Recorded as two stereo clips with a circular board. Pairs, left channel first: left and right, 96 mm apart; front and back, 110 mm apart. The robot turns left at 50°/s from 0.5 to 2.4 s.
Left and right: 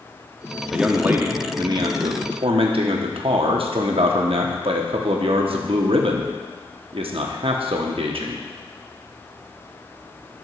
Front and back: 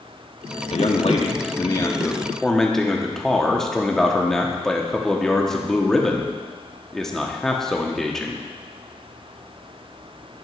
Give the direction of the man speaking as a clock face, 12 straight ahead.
12 o'clock.